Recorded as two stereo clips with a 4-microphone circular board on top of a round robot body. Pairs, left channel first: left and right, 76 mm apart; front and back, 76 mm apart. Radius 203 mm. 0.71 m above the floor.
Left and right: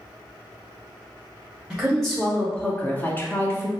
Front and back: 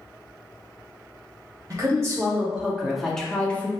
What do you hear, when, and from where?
1.7 s a woman speaking: straight behind, 1.1 m; by 3.7 s 55° left, 1.1 m